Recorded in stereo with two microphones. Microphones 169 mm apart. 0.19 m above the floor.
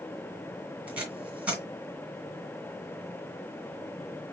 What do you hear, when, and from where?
0.9 s tape being pulled: 10° right (ahead or behind), 2.0 m